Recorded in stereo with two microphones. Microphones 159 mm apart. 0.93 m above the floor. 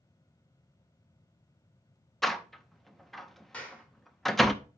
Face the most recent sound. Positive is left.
turn(degrees=10)  # may be behind; listen again after turning